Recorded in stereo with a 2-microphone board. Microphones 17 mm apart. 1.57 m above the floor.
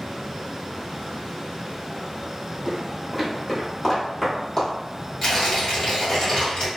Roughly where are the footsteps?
Centre.